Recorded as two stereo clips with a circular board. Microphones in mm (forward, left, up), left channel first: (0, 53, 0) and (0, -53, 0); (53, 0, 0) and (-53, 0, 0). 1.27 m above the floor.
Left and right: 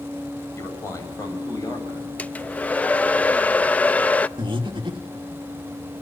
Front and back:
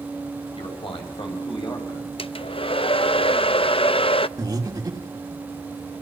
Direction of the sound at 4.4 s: 130° right.